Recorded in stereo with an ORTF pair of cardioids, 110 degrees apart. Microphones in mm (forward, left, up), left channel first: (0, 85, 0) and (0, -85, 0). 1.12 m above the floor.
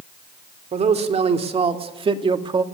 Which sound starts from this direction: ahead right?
A man speaking, at 0.7 s.